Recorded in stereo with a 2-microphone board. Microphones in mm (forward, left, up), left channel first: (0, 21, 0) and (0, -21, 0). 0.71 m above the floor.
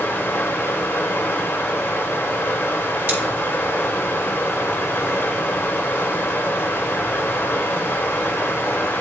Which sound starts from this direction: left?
Running water, at 0.0 s.